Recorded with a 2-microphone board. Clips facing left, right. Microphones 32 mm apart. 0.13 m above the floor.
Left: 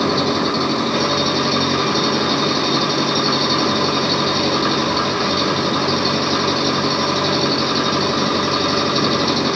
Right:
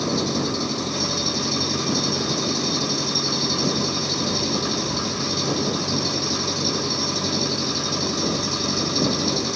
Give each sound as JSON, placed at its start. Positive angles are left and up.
{"t": 0.0, "sound": "an engine running", "side_deg": 35}